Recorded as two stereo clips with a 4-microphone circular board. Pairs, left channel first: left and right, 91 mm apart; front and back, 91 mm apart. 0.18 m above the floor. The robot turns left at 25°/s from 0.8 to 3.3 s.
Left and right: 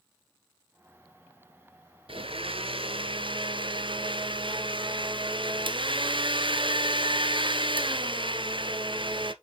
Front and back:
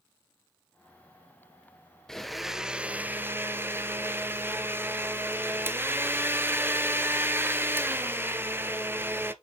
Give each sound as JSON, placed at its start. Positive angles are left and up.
{"t": 2.1, "sound": "a blender", "azimuth_deg": -85, "distance_m": 0.7}